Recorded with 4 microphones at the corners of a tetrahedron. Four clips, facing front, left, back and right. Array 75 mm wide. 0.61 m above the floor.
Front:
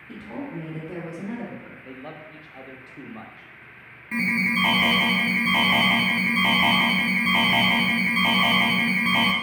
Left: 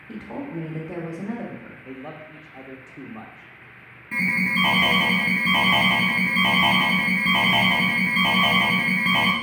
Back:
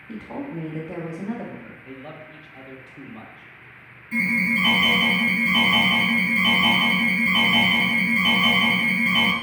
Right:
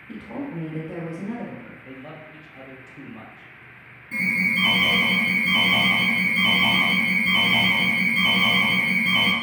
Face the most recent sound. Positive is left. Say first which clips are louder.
# even, back 2 dB
turn(degrees=45)